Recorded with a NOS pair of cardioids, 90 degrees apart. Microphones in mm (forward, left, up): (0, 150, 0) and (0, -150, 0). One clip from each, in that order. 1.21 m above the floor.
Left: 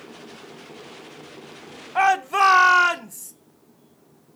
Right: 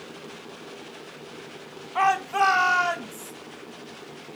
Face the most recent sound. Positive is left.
turn(degrees=60)